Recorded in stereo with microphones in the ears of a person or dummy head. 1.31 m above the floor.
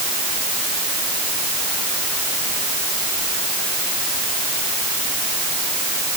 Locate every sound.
Only background noise.